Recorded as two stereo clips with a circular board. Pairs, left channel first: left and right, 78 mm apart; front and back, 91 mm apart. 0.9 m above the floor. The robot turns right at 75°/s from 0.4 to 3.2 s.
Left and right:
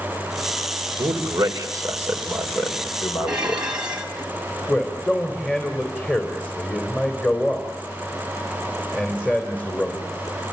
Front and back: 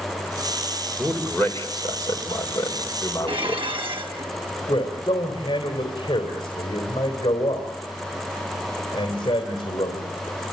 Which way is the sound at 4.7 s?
20° left.